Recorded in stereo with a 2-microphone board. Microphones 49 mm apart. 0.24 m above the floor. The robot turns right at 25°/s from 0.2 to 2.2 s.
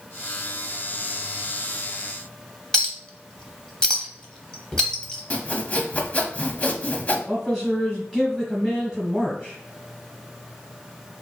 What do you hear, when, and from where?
2.7 s a clink: 15° left (ahead or behind), 0.7 m
5.3 s sawing: 30° left (ahead or behind), 0.5 m
7.3 s a man speaking: 10° left (ahead or behind), 1.4 m